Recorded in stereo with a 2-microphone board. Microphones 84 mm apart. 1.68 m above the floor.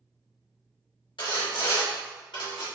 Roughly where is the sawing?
Left.